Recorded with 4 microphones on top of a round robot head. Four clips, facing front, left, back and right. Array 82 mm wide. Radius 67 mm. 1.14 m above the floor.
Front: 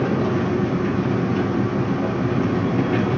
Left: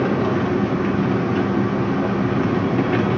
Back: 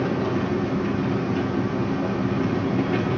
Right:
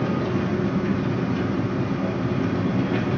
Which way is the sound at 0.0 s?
75° left.